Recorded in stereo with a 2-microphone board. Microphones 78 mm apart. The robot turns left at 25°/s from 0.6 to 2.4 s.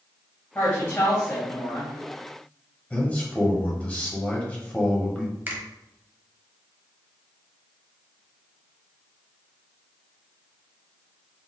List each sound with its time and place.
0.6 s a woman speaking: 110° left, 1.6 m; by 2.0 s 75° left, 1.6 m
2.9 s a man speaking: 20° left (ahead or behind), 1.0 m
5.5 s a finger snap: 25° right (ahead or behind), 1.0 m